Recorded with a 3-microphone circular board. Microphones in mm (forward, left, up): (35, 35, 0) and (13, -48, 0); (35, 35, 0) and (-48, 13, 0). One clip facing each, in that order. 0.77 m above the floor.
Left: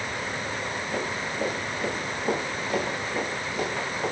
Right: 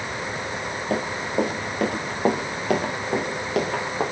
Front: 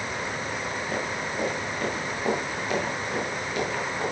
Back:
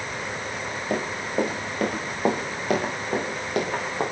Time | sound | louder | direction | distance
0.9 | running footsteps | right 9 dB, back 7 dB | 130° right | 10 m